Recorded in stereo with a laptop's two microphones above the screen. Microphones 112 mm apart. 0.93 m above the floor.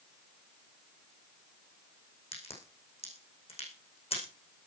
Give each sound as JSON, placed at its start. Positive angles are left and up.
{"t": 2.3, "sound": "a crack", "side_deg": 55, "distance_m": 9.0}